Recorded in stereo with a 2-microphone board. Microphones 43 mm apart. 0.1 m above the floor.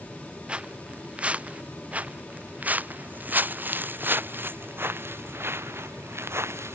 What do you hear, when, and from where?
0.5 s footsteps: 25° right (ahead or behind); by 6.8 s 75° right (ahead or behind)